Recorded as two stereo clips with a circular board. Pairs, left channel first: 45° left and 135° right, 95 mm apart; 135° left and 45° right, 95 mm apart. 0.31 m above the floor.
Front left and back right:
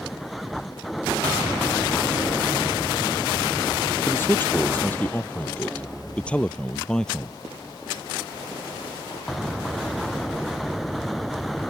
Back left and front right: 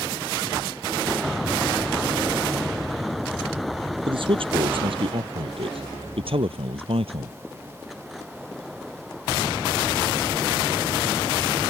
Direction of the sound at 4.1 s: 20° right.